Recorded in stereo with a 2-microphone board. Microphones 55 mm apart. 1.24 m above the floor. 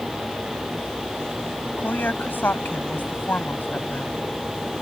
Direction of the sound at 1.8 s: 35° left (ahead or behind).